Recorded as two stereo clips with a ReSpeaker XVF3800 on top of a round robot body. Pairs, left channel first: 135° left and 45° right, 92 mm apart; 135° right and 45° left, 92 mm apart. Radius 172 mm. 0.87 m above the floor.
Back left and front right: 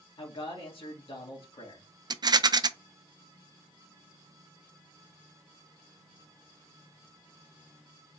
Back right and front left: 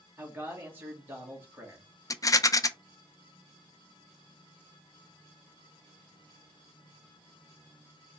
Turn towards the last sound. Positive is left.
turn(degrees=-85)